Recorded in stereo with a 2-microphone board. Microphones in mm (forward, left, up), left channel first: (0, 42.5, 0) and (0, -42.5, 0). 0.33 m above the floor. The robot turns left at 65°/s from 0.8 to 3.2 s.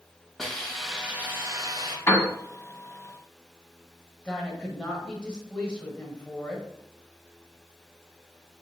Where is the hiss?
Straight ahead, 1.0 m; by 2.0 s 75° right, 1.0 m.